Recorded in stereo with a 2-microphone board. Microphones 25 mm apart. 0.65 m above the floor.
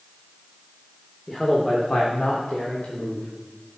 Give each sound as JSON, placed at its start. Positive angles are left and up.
{"t": 1.3, "sound": "a man speaking", "side_deg": 15, "distance_m": 1.8}